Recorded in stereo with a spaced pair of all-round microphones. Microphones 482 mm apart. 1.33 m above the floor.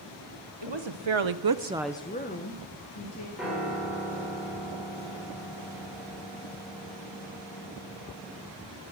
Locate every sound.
0.6 s a woman speaking: 60° right (ahead or behind), 1.5 m; by 3.3 s 35° left (ahead or behind), 2.5 m
3.4 s a piano: centre (ahead or behind), 5 m